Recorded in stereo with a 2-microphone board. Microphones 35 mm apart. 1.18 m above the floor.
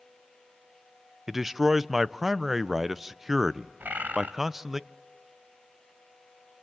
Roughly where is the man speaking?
Centre.